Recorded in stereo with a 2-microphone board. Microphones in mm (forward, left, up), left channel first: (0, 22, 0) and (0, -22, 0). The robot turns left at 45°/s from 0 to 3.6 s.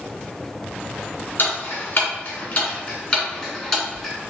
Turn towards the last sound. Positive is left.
turn(degrees=10)  # may be behind; listen again after turning